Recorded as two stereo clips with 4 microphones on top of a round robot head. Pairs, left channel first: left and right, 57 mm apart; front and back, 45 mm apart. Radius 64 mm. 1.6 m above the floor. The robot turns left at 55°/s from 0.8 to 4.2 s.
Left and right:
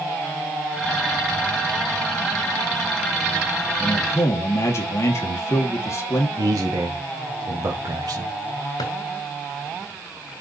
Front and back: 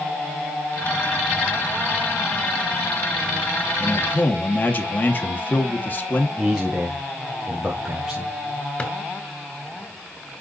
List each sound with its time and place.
3.8 s a man speaking: 65° left, 2.5 m; by 6.3 s 45° left, 2.5 m
6.4 s a man speaking: 100° right, 1.6 m
8.8 s a drawer: 55° left, 2.5 m